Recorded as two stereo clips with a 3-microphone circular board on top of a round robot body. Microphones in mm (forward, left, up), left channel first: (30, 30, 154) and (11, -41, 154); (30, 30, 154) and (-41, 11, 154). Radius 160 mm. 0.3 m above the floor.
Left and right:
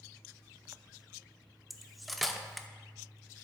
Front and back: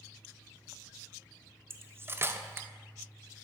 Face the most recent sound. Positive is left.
turn(degrees=165)